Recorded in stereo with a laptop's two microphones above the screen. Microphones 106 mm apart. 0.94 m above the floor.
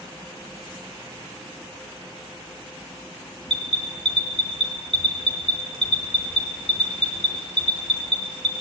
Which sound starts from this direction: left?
An alarm, at 3.5 s.